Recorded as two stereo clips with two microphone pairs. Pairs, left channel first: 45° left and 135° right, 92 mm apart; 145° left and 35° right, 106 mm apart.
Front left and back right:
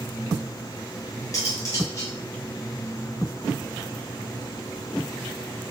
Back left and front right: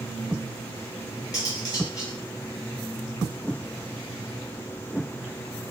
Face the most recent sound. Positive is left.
turn(degrees=95)